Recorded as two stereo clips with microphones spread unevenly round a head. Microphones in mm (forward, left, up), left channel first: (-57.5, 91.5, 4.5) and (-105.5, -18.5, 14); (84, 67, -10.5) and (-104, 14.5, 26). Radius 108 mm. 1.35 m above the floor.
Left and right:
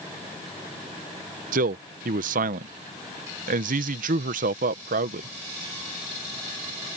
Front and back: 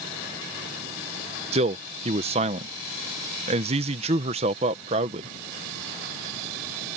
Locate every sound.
1.5 s a man speaking: 100° right